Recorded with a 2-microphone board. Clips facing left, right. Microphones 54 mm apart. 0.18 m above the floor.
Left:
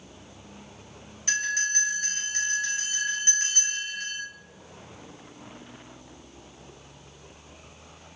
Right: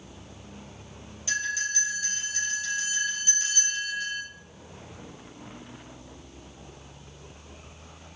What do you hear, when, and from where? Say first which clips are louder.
1.3 s a bell: left 2 dB; 55° left (ahead or behind), 1.7 m